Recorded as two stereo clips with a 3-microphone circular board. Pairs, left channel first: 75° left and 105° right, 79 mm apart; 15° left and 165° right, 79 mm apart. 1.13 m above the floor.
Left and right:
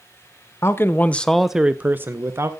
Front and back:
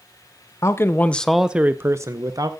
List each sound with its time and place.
0.6 s a man speaking: 40° left, 0.7 m; by 2.5 s 150° right, 0.9 m